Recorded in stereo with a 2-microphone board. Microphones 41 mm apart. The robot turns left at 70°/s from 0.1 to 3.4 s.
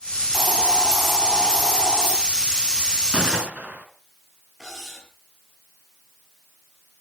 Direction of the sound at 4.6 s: Centre (ahead or behind).